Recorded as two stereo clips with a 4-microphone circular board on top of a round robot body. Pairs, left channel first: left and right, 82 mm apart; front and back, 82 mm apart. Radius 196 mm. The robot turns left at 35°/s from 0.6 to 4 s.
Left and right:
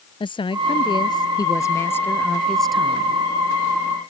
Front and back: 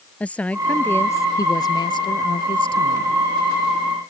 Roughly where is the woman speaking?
Left.